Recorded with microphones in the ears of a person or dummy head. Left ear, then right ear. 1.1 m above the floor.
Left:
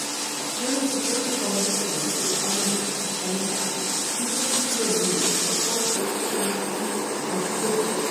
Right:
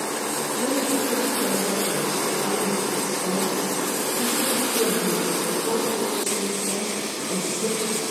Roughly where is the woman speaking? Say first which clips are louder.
Right 1 dB; centre.